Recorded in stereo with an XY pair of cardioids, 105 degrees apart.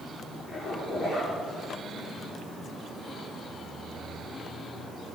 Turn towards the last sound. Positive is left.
turn(degrees=20)